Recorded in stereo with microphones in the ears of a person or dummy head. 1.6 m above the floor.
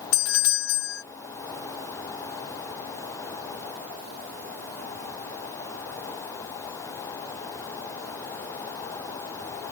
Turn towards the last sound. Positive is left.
turn(degrees=70)  # may be behind; listen again after turning